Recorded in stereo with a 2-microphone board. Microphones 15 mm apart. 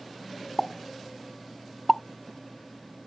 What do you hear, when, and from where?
0.6 s a pop: 50° left (ahead or behind)